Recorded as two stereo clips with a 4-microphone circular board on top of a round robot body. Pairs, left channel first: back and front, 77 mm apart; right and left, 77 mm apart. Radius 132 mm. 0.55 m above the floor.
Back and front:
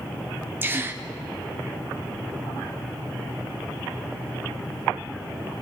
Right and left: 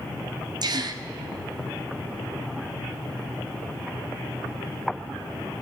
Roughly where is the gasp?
Ahead left.